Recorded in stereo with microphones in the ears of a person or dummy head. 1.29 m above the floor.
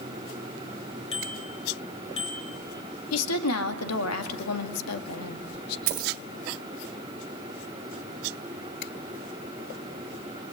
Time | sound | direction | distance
1.1 | a bicycle bell | 35° left (ahead or behind) | 4.5 m
3.1 | a woman speaking | 90° left | 2 m
5.9 | a dropped coin | 45° right (ahead or behind) | 1.6 m